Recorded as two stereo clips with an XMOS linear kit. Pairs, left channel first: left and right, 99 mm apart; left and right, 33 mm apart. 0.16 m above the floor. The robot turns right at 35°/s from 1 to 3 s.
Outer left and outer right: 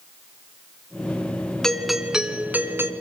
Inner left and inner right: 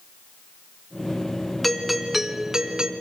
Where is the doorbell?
170° left, 2 m; by 2.9 s 145° right, 2 m.